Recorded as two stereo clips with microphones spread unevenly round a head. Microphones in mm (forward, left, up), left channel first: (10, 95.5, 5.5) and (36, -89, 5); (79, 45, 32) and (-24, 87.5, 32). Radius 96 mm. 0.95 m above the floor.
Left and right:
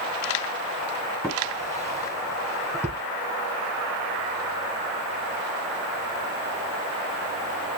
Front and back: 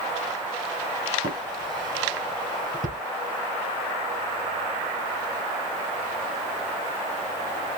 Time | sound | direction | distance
1.2 | a drawer | 175° left | 3 m